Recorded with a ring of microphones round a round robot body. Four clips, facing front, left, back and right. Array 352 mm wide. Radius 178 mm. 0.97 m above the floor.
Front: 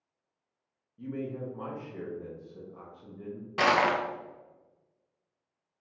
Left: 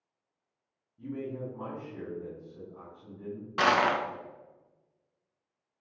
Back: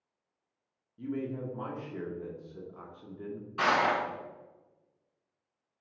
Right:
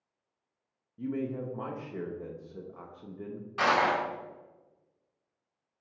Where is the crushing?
30° left, 0.6 m.